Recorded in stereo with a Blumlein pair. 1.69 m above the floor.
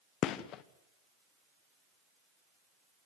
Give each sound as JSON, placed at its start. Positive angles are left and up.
{"t": 0.2, "sound": "a gunshot", "azimuth_deg": 35, "distance_m": 1.1}